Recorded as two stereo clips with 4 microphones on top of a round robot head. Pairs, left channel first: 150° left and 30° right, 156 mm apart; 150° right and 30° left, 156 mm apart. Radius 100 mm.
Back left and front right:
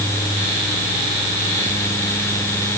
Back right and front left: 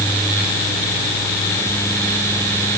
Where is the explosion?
I don't hear an explosion.